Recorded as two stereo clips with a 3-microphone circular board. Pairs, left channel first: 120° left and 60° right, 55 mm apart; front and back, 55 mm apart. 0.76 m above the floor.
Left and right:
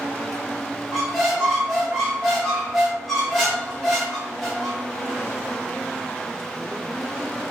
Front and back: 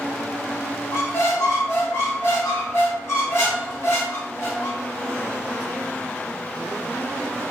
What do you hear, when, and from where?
0.9 s a squeak: 30° left, 1.0 m